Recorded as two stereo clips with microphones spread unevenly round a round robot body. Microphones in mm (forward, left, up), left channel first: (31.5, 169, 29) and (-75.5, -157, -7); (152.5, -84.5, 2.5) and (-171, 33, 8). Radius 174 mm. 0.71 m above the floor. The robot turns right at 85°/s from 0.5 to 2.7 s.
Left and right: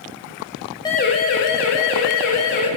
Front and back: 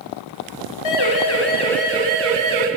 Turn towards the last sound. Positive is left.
turn(degrees=145)